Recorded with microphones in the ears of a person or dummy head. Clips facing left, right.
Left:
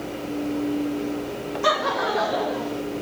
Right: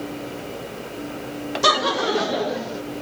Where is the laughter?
50° right (ahead or behind), 0.9 m; by 2.8 s 25° right (ahead or behind), 2.0 m.